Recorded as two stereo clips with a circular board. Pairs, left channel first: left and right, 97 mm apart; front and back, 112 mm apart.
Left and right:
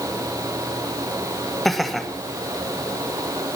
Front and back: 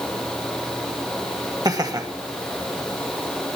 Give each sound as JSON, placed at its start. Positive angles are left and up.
{"t": 1.6, "sound": "laughter", "azimuth_deg": 175, "distance_m": 1.6}